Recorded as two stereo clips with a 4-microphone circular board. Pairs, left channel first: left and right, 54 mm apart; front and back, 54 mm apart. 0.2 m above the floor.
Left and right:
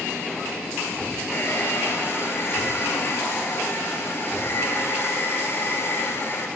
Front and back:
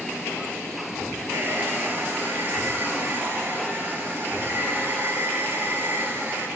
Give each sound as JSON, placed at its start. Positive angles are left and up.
{"t": 1.3, "sound": "a hair dryer", "azimuth_deg": 135, "distance_m": 0.8}